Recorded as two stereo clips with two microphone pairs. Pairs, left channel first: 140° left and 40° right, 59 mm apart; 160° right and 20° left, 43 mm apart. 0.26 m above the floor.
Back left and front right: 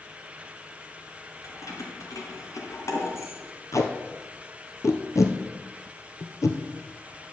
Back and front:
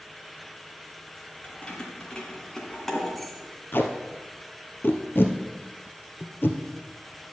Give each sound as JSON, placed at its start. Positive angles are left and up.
{"t": 1.4, "sound": "keys jangling", "azimuth_deg": 140, "distance_m": 2.5}
{"t": 3.7, "sound": "tape being pulled", "azimuth_deg": 170, "distance_m": 1.1}